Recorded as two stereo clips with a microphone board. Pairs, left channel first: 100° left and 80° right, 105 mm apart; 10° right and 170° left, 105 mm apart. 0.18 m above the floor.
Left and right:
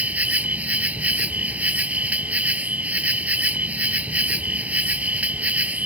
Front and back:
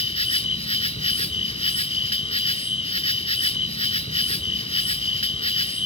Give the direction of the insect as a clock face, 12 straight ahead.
12 o'clock.